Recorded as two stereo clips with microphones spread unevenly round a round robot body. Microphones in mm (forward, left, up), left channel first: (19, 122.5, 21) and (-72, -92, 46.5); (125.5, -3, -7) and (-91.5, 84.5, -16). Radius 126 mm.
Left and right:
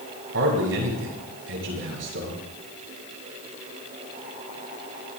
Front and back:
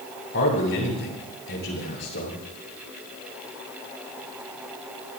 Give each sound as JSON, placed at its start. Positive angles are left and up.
{"t": 0.3, "sound": "a man speaking", "azimuth_deg": -70, "distance_m": 7.0}